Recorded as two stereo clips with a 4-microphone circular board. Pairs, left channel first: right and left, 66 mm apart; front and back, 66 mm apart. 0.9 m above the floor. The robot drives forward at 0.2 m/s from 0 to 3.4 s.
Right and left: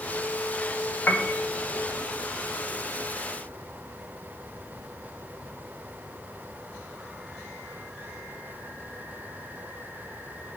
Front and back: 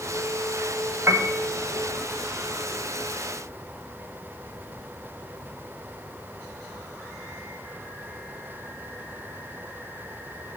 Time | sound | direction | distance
1.1 | a piano | 145° right | 1.2 m